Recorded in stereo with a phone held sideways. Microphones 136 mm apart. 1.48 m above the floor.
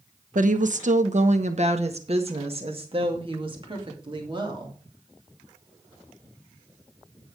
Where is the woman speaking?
70° right (ahead or behind), 1.0 m; by 4.8 s 35° right (ahead or behind), 3 m.